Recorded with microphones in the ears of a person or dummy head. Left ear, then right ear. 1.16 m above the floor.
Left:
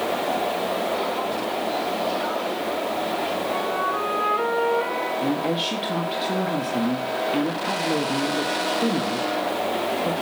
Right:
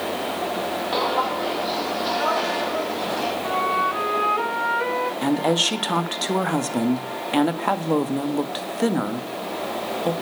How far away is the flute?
About 3 m.